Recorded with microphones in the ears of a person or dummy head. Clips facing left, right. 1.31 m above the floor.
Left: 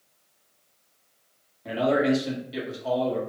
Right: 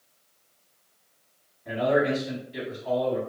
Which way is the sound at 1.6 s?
85° left.